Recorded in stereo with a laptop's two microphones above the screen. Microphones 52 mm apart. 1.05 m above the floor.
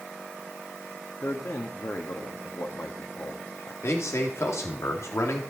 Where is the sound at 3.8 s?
65° left (ahead or behind), 2.5 m.